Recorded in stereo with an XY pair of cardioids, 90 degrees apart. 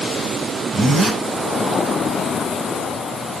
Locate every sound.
0.7 s a zipper: 45° right, 5.5 m